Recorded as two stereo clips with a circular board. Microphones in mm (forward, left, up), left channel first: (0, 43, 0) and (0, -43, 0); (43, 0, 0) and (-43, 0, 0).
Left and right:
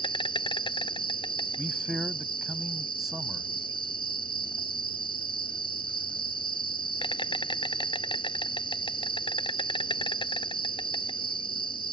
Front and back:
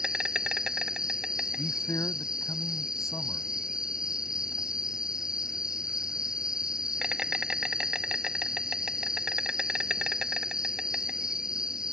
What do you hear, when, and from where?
0.0 s an insect: 100° left
1.6 s a man speaking: 10° right